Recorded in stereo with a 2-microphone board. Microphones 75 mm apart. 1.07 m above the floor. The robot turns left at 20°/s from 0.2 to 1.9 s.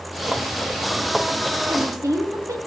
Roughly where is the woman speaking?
Right.